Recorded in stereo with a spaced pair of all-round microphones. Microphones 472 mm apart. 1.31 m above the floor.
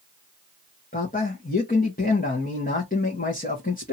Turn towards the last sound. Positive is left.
turn(degrees=20)  # may be behind; listen again after turning